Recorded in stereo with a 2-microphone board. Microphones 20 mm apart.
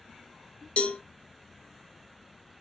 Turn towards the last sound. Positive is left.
turn(degrees=75)  # may be behind; listen again after turning